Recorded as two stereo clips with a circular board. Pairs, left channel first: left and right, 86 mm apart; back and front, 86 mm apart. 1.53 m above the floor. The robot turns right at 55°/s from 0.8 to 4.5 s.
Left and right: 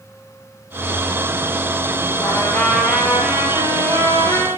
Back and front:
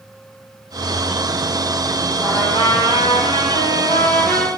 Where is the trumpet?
140° left, 7 m; by 4.5 s 95° right, 7 m.